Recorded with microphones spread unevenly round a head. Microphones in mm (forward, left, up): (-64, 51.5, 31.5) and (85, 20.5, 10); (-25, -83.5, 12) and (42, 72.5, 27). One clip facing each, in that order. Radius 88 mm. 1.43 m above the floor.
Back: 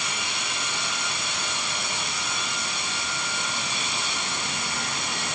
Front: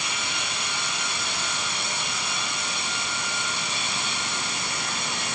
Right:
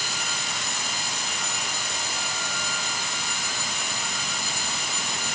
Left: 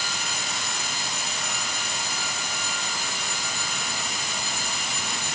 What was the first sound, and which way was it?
Only background noise.